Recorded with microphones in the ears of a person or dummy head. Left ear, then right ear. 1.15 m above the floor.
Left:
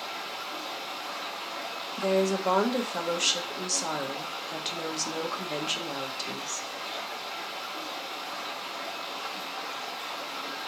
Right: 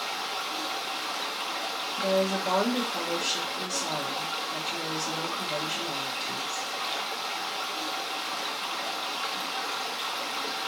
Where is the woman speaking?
70° left (ahead or behind), 1.0 m.